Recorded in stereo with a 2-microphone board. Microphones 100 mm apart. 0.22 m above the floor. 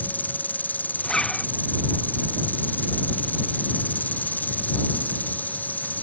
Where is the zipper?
5° left (ahead or behind).